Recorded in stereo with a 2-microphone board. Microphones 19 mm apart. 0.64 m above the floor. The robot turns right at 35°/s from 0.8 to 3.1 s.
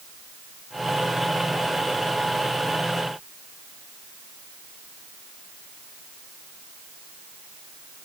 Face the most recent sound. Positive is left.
No sound to turn to.